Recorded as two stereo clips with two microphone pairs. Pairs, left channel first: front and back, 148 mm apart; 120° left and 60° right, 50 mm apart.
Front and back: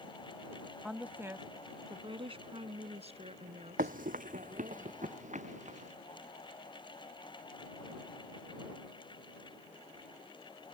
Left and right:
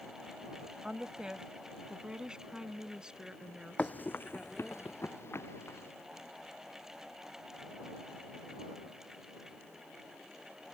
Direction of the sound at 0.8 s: 90° right.